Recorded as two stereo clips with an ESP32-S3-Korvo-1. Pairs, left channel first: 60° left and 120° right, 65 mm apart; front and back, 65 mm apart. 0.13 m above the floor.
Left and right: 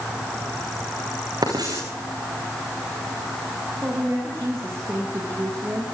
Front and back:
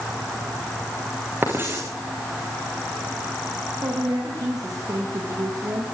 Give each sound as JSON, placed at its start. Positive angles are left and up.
{"t": 1.4, "sound": "writing", "azimuth_deg": -125, "distance_m": 7.0}
{"t": 3.8, "sound": "a woman speaking", "azimuth_deg": -170, "distance_m": 7.5}